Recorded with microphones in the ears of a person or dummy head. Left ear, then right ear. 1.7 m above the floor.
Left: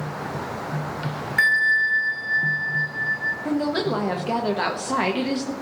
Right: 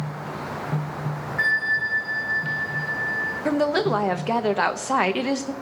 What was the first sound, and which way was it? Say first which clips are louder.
A bell: left 4 dB; 80° left.